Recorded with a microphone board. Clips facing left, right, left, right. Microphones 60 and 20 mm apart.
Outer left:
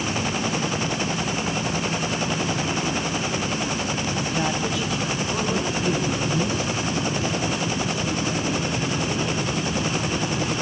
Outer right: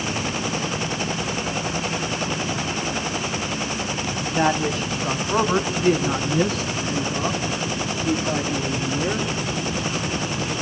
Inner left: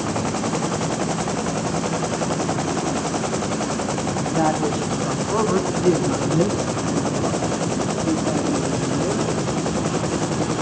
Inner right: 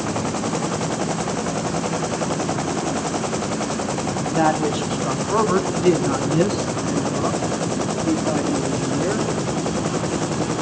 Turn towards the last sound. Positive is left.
turn(degrees=-70)  # may be behind; listen again after turning